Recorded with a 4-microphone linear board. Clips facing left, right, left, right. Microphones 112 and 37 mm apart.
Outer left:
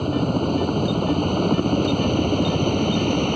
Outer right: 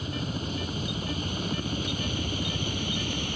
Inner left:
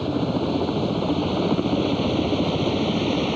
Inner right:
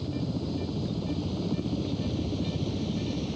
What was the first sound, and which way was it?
A helicopter, 55° left (ahead or behind).